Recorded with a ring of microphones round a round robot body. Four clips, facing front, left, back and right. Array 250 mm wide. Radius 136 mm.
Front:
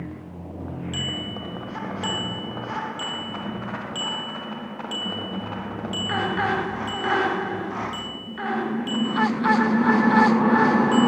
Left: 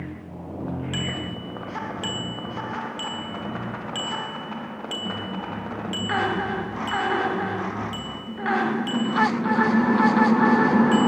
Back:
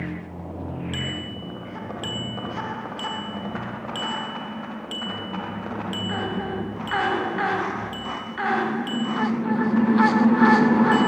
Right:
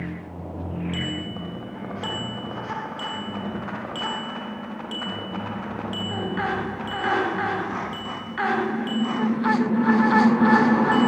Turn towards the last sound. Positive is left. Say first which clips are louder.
# even, even
turn(degrees=115)